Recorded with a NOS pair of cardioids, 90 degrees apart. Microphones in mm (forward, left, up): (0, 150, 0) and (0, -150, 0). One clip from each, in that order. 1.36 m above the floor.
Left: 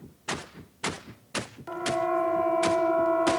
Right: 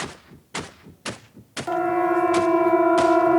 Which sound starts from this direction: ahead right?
A siren, at 1.7 s.